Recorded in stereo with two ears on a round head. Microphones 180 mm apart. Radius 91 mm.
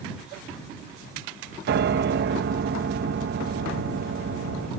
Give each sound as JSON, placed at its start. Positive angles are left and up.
{"t": 1.7, "sound": "a piano", "side_deg": -55}